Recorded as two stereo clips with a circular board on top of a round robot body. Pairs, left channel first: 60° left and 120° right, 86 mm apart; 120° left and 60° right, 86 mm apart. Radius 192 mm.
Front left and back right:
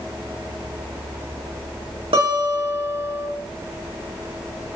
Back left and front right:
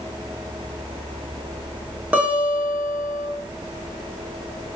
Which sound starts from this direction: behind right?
A guitar, at 2.1 s.